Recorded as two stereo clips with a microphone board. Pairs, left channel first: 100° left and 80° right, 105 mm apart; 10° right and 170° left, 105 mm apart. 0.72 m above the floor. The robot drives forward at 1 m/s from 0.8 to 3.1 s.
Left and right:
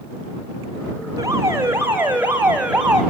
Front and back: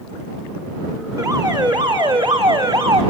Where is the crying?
No crying in this recording.